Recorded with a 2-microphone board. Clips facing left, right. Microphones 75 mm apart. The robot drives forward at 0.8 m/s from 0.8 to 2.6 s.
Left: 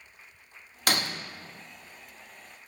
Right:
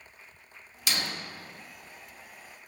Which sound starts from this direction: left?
Breaking glass, at 0.9 s.